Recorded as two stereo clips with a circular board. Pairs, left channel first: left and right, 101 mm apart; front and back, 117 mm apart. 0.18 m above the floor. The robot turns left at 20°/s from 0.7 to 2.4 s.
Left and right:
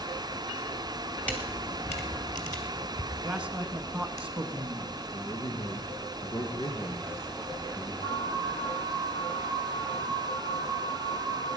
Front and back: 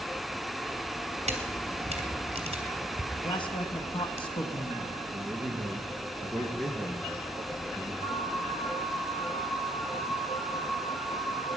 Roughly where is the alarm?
Ahead left.